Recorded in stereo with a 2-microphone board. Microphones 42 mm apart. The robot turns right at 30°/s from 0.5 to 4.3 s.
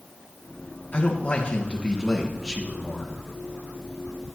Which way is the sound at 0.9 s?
135° left.